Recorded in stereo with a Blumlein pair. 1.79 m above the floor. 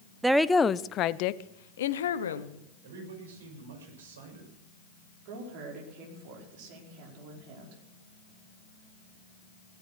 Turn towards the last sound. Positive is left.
turn(degrees=-45)